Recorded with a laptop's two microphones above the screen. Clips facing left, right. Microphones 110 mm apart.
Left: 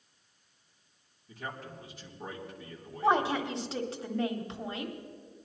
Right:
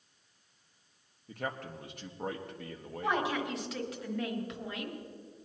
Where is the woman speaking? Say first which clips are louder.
Left 5 dB; 30° left (ahead or behind), 1.2 m.